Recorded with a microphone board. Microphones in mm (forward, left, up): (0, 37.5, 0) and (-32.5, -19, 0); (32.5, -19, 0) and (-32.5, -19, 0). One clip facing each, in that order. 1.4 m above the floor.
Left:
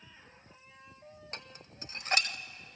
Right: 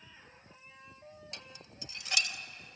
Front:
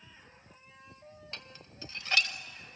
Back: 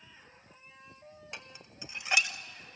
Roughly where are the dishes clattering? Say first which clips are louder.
Left 2 dB, back 2 dB; left.